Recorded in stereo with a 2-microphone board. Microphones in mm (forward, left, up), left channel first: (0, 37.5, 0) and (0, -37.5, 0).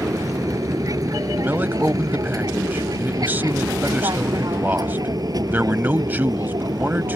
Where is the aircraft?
50° right (ahead or behind); by 7.2 s 60° right (ahead or behind).